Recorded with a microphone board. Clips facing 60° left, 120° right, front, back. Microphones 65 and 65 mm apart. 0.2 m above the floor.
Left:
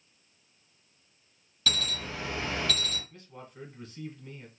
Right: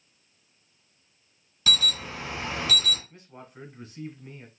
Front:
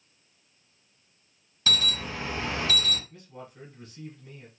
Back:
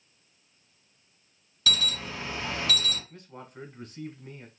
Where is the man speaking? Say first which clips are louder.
Right 1 dB, even; 175° left, 1.3 m.